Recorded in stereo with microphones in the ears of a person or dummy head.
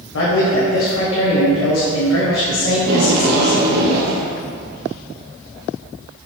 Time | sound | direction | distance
0.1 | a man speaking | 75° left (ahead or behind) | 0.8 m
2.8 | tape being pulled | 60° right (ahead or behind) | 0.7 m